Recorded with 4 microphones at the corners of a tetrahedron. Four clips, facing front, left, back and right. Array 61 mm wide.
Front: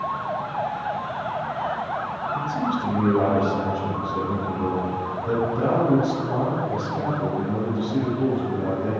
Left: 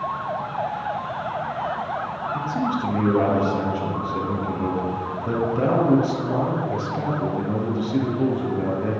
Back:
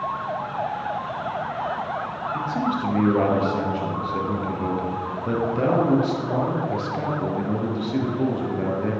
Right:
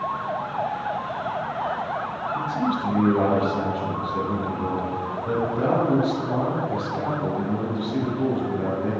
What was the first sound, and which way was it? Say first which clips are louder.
A man speaking: even, back 1 dB; 155° left.